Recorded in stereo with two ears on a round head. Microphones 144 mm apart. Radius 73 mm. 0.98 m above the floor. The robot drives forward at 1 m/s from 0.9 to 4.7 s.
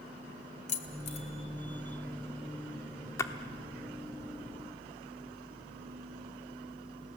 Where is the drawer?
I don't hear a drawer.